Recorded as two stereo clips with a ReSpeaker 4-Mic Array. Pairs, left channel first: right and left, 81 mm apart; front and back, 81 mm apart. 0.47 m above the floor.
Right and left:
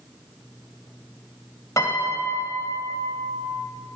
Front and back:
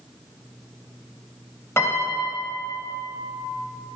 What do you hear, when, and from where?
1.8 s a piano: 50° right, 2 m